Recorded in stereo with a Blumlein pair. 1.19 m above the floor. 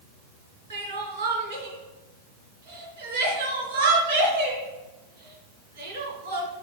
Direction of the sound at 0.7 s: 65° right.